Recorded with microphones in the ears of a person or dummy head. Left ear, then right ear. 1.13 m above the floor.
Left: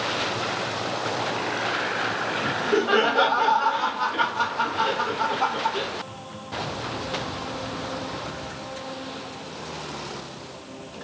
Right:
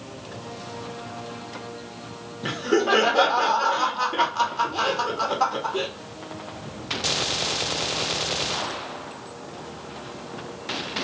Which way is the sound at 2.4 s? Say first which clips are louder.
Right 3 dB; 80° right.